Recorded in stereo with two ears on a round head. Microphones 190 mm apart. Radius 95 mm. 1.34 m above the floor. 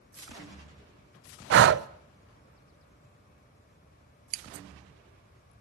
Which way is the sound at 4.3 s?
50° right (ahead or behind).